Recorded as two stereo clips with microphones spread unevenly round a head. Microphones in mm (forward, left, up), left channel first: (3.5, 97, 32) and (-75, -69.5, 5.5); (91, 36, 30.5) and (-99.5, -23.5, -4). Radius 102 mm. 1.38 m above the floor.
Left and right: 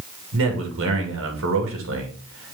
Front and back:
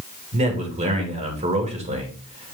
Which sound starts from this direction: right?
A man speaking, at 0.3 s.